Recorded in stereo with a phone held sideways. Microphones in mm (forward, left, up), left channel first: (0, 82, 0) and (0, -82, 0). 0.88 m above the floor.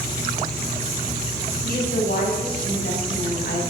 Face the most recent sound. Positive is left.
turn(degrees=70)  # may be behind; listen again after turning